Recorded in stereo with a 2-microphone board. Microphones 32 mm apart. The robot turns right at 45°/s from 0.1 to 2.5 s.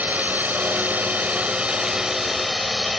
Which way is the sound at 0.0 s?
110° right.